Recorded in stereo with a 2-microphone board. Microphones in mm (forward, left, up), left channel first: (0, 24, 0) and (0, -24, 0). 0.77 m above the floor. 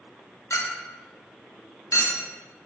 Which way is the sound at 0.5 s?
85° left.